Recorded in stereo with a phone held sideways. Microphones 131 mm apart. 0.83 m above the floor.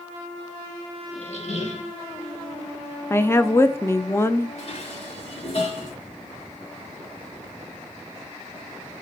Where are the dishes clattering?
50° left (ahead or behind), 2 m.